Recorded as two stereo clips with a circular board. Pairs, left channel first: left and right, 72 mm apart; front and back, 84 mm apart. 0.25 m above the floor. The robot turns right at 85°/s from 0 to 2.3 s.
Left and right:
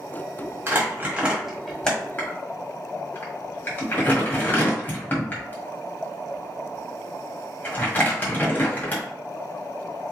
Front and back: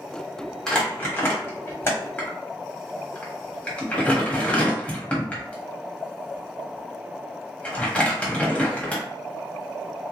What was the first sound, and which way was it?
Crumpling, 80° right.